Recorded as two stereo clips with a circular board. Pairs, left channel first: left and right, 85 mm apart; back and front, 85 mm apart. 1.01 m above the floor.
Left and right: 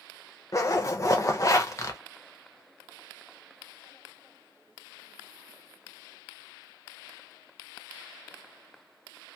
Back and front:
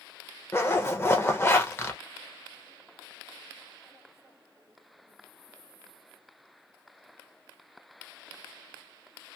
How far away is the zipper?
About 0.6 m.